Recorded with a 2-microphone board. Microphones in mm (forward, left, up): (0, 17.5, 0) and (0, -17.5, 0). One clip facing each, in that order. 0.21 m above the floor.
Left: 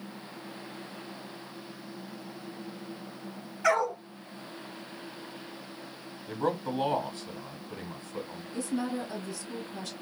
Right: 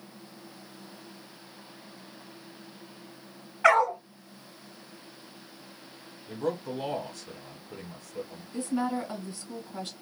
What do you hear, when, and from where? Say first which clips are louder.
3.6 s a dog barking: right 5 dB; 45° right (ahead or behind), 0.9 m
6.3 s a man speaking: left 1 dB; 35° left (ahead or behind), 1.2 m
8.5 s a woman speaking: right 3 dB; 40° right (ahead or behind), 1.7 m